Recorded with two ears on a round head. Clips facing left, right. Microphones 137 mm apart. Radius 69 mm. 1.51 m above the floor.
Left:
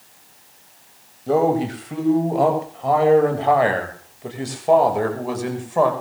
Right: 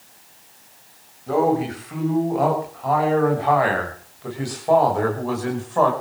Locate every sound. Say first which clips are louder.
1.3 s a man speaking: left 1 dB; 40° left (ahead or behind), 7.5 m; by 5.9 s 15° left (ahead or behind), 6 m